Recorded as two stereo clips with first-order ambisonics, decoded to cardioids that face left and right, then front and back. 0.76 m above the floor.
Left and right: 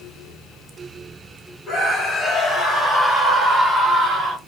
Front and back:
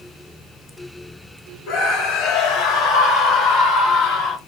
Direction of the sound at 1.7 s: 25° left.